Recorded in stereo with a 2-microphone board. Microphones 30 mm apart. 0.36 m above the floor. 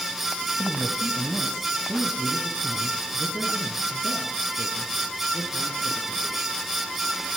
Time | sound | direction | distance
0.6 | a man speaking | 5° left (ahead or behind) | 1.9 m